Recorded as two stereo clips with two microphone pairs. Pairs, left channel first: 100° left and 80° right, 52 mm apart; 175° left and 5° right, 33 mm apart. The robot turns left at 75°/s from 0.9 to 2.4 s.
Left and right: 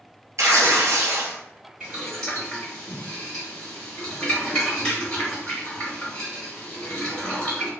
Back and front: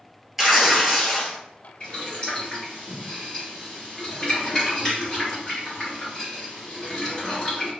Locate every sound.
0.4 s tearing paper: 90° right, 0.7 m; by 1.4 s 130° right, 0.7 m
1.8 s boiling: 165° right, 1.9 m; by 7.7 s 150° left, 1.9 m